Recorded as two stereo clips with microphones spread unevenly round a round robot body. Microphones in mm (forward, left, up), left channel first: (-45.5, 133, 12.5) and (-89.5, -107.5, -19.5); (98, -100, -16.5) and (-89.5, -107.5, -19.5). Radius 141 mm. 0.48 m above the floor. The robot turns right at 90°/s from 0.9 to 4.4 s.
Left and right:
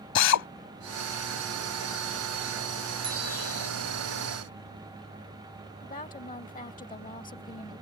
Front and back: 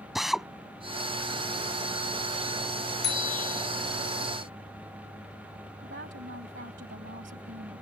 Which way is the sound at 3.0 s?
30° right.